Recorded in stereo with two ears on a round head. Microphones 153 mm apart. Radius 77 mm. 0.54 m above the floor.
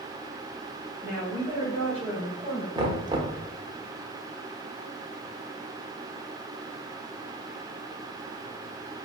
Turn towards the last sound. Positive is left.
turn(degrees=-25)  # may be behind; listen again after turning